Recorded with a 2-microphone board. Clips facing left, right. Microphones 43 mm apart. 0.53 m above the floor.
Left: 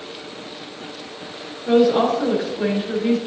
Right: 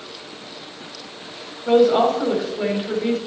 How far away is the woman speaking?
About 3.5 m.